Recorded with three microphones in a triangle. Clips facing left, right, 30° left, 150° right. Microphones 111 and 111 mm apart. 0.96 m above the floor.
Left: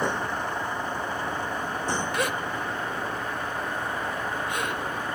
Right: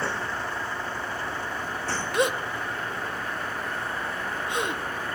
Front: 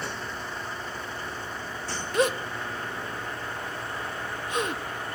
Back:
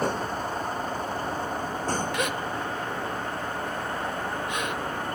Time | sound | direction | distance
0.0 | a vehicle | 165° left | ?
2.1 | a gasp | 25° right | ?